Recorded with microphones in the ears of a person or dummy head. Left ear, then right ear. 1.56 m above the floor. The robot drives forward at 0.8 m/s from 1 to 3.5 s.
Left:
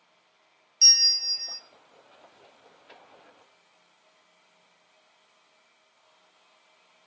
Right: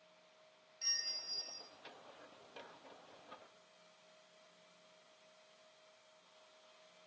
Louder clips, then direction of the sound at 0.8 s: Left 21 dB; 80° left.